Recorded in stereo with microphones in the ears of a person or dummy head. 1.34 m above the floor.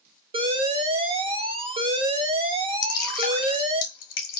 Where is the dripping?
55° left (ahead or behind), 1.0 m.